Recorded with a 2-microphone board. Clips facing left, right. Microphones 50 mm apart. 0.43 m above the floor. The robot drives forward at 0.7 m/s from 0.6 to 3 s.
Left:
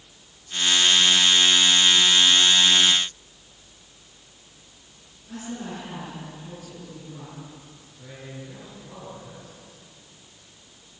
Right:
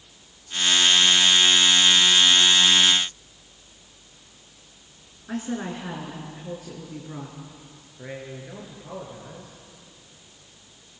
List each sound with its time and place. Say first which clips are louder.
5.3 s a woman speaking: right 5 dB; 75° right (ahead or behind), 7 m
8.0 s a man speaking: right 4 dB; 50° right (ahead or behind), 8 m